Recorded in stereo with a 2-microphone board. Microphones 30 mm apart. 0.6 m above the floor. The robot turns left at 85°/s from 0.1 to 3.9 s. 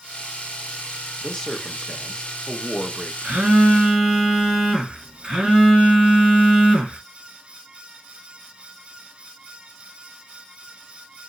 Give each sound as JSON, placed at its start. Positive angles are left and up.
{"t": 1.2, "sound": "a man speaking", "side_deg": 10, "distance_m": 0.5}
{"t": 3.2, "sound": "a phone buzzing", "azimuth_deg": -95, "distance_m": 1.0}